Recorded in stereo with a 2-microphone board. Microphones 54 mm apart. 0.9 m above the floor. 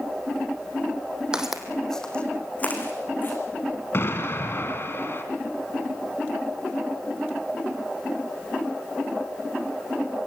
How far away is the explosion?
About 2 m.